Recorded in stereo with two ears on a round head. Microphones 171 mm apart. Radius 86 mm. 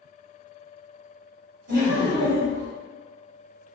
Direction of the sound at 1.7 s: 55° right (ahead or behind).